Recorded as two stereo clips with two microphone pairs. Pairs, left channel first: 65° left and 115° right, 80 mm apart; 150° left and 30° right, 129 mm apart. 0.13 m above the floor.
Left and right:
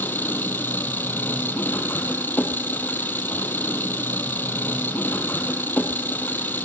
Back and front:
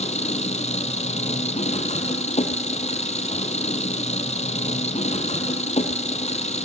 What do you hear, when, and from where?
0.0 s an engine running: 125° left, 1.4 m